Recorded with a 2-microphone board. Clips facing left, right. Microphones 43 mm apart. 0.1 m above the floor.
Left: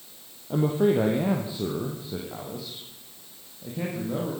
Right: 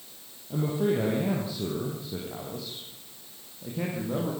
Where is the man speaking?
40° left (ahead or behind), 3.5 m; by 4.3 s 5° right (ahead or behind), 7 m.